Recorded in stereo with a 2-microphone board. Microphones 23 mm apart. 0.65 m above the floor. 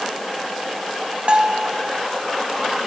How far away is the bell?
About 0.5 m.